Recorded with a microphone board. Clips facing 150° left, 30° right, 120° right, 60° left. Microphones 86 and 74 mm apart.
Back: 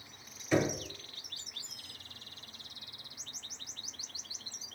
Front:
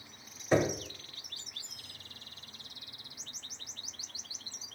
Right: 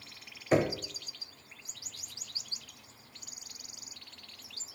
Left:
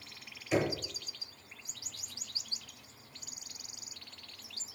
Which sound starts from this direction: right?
Knocking, at 0.5 s.